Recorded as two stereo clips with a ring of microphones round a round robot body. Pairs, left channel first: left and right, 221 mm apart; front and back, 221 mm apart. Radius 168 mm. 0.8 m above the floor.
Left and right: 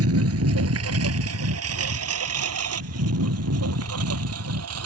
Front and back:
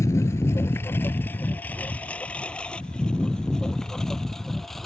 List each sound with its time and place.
0.0 s a lawn mower: 80° right; by 4.9 s 90° right